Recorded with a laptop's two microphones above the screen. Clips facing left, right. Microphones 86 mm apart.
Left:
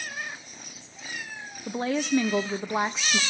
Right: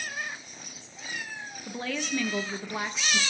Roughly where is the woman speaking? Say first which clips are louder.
Left 7 dB; left.